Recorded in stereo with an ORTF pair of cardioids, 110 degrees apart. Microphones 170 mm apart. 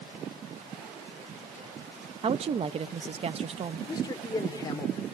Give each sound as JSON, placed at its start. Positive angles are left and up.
{"t": 2.2, "sound": "a woman speaking", "azimuth_deg": -35, "distance_m": 1.0}
{"t": 3.9, "sound": "a man speaking", "azimuth_deg": 20, "distance_m": 4.0}